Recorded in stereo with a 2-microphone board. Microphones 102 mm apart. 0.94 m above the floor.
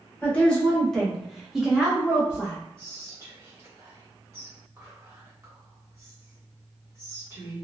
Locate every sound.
0.2 s a woman speaking: 10° left (ahead or behind), 1.2 m; by 2.6 s 15° right (ahead or behind), 1.1 m
2.8 s whispering: 25° right (ahead or behind), 1.2 m